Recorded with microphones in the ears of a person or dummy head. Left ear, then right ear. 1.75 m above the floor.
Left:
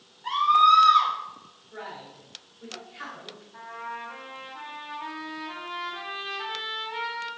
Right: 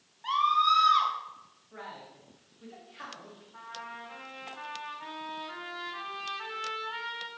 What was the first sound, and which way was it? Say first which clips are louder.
A scream: left 6 dB; 75° right (ahead or behind).